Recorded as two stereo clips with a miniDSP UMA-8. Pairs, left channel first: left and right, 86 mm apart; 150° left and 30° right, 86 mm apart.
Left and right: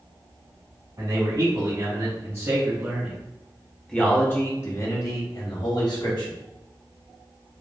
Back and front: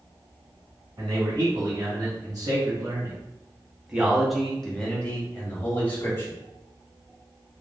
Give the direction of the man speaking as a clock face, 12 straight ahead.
2 o'clock.